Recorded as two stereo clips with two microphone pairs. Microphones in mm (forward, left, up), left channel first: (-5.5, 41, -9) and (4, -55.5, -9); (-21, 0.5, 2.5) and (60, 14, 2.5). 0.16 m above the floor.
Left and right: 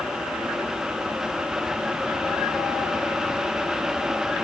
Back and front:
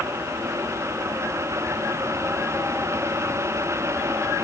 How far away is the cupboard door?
No cupboard door in this recording.